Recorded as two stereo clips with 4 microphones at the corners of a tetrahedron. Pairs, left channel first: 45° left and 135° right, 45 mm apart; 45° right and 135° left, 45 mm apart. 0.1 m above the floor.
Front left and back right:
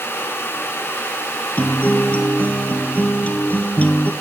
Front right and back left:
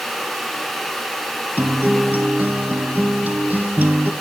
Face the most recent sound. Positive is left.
turn(degrees=95)